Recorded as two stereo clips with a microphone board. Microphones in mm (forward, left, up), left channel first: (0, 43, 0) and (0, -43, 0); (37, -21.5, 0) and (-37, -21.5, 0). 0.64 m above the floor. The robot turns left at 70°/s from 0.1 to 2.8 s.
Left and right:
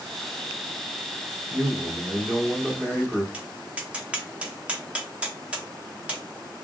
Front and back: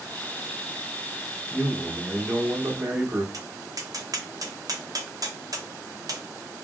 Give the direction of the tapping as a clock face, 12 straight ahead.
5 o'clock.